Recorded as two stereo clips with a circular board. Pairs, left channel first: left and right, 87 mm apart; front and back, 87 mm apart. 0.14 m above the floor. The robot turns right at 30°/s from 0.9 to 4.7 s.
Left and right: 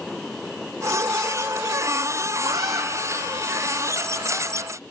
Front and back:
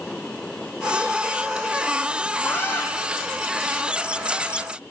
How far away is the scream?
About 6.5 m.